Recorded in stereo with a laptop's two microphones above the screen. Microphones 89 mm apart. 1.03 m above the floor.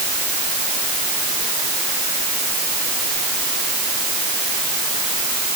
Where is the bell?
No bell in this recording.